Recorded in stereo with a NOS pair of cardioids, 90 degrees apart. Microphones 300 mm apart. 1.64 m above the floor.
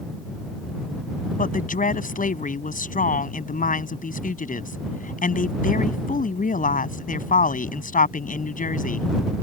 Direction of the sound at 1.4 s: 25° left.